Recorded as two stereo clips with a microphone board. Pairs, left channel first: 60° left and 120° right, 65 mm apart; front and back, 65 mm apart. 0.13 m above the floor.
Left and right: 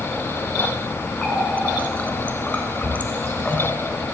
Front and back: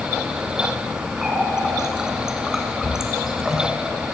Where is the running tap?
105° left, 0.9 m.